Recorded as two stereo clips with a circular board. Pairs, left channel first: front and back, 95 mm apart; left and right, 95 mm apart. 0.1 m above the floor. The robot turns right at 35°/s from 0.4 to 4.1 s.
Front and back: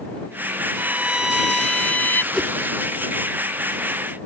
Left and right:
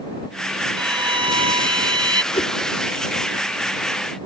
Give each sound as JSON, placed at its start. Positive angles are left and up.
{"t": 0.8, "sound": "a violin", "azimuth_deg": -115}
{"t": 2.3, "sound": "a whoosh", "azimuth_deg": 85}